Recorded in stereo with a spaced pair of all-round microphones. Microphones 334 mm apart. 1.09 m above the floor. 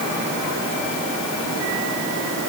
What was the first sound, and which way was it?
Only background noise.